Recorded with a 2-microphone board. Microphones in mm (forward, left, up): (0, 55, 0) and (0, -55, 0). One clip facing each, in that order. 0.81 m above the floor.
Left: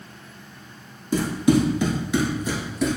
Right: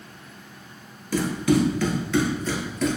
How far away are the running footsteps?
About 0.8 m.